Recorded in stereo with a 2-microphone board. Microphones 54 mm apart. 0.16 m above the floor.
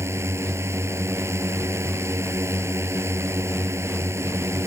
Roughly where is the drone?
Right.